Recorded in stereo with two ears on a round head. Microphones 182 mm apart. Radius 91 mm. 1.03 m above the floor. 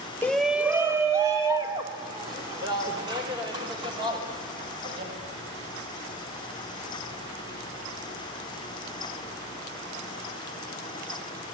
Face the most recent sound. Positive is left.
turn(degrees=-25)  # may be behind; listen again after turning